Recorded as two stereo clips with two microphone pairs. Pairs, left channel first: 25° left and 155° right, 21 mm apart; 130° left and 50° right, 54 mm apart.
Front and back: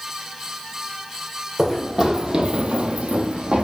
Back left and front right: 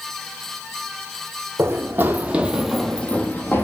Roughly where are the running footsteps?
Right.